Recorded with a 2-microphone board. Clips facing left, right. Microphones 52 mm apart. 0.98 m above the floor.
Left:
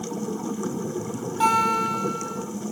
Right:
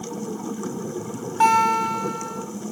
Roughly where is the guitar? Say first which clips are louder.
Right 3 dB; right.